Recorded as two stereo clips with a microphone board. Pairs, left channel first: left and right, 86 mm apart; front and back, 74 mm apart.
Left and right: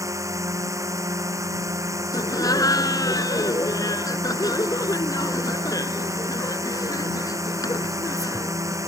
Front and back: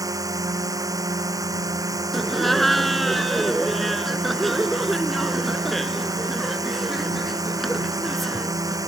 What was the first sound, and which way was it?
A drone, 140° right.